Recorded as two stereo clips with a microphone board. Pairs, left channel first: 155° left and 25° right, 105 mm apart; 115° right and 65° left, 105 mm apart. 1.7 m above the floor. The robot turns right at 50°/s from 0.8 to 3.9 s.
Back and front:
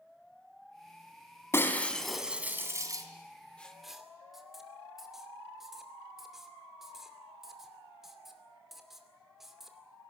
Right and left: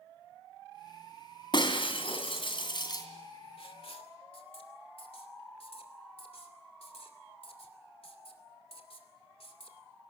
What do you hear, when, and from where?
1.5 s breaking glass: 140° right, 2.5 m; by 3.0 s 65° right, 2.5 m
3.6 s writing: 125° right, 2.5 m; by 9.8 s 110° right, 2.5 m